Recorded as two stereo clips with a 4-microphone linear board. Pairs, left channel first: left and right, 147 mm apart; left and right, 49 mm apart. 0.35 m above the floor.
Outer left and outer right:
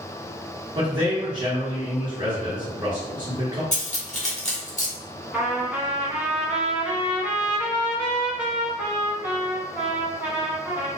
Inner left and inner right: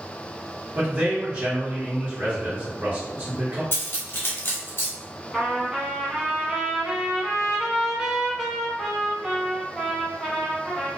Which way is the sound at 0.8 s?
30° right (ahead or behind).